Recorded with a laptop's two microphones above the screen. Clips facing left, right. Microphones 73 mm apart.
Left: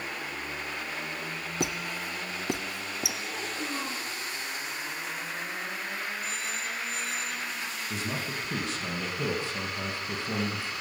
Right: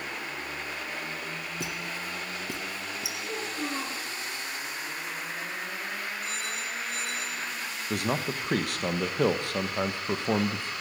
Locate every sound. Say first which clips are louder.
1.6 s a squeak: left 5 dB; 60° left (ahead or behind), 0.7 m
3.2 s a child speaking: right 1 dB; 75° right (ahead or behind), 9.5 m
6.2 s a phone ringing: even; 55° right (ahead or behind), 3 m
7.9 s a man speaking: right 7 dB; 60° right (ahead or behind), 1.0 m